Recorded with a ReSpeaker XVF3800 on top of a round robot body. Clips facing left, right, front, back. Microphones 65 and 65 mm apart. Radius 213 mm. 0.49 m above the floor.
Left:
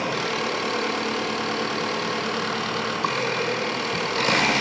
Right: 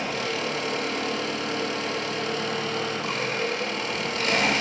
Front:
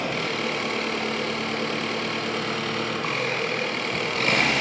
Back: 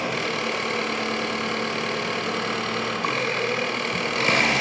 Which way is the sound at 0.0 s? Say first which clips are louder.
Left 3 dB, back 1 dB; 95° left.